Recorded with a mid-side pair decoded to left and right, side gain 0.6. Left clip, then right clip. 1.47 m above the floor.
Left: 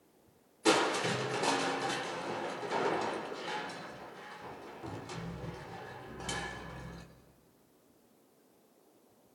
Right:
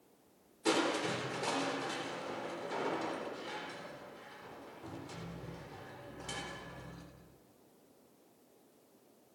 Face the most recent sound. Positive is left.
turn(degrees=30)